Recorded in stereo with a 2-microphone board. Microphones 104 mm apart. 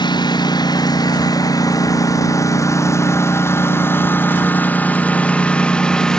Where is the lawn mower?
50° left (ahead or behind); by 6.2 s 5° left (ahead or behind).